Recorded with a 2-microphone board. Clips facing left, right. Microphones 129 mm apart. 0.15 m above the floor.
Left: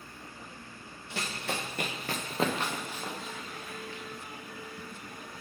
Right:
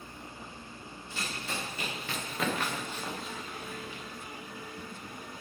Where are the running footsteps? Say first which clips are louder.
Left 3 dB; 80° left, 2.0 m; by 4.0 s 15° right (ahead or behind), 2.5 m.